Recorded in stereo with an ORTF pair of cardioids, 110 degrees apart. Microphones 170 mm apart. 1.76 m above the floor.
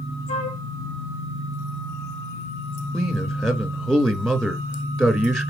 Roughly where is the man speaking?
Ahead.